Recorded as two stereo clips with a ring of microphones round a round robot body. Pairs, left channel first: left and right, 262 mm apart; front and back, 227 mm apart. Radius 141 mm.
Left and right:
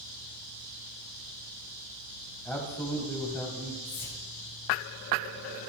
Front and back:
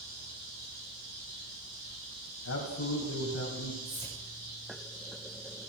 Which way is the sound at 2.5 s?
5° left.